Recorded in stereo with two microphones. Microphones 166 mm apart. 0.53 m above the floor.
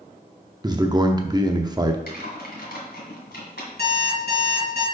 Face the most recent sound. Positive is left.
turn(degrees=85)